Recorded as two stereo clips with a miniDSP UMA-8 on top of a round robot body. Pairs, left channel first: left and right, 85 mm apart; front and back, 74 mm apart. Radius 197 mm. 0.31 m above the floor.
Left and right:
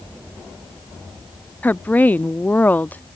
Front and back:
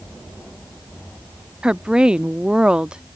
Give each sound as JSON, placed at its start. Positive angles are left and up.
{"t": 1.6, "sound": "a woman speaking", "azimuth_deg": 125}